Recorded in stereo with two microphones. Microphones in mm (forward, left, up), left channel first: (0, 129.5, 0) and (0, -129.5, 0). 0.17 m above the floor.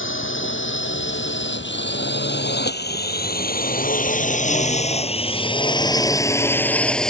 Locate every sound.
0.0 s a drone: 55° left (ahead or behind); by 7.1 s centre (ahead or behind)